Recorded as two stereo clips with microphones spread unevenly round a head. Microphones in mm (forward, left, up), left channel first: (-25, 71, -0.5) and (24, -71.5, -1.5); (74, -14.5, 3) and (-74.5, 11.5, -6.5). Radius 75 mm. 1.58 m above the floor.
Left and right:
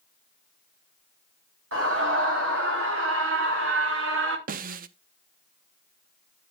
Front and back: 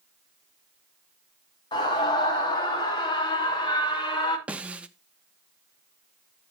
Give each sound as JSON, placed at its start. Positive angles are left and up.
{"t": 1.7, "sound": "a scream", "azimuth_deg": -70, "distance_m": 4.5}
{"t": 4.5, "sound": "a snare drum", "azimuth_deg": -110, "distance_m": 0.6}